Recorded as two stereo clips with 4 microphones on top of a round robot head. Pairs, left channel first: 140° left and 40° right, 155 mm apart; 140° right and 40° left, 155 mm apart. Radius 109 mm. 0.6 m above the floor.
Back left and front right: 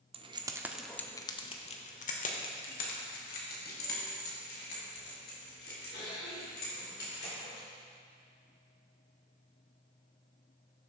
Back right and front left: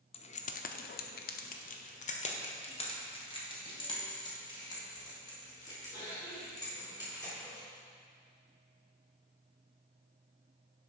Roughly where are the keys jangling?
Right.